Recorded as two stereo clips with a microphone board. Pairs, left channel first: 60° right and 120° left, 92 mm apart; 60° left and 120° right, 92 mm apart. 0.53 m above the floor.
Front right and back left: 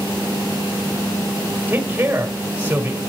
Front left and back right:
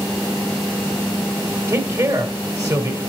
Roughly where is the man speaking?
Behind.